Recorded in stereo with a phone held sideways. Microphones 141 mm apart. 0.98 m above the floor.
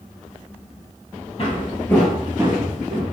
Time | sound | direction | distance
1.4 | footsteps | 45° left (ahead or behind) | 1.6 m